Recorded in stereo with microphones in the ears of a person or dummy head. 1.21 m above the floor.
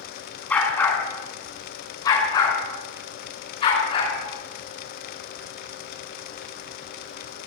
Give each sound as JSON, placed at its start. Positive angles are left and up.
{"t": 0.5, "sound": "a dog barking", "side_deg": 10, "distance_m": 5.5}